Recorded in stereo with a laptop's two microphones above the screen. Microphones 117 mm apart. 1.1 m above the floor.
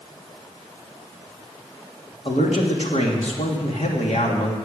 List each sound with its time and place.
2.2 s a man speaking: 75° left (ahead or behind), 2.5 m